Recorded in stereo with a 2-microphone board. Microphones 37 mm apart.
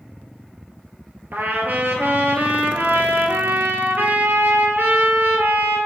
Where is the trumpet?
65° right (ahead or behind), 0.5 m.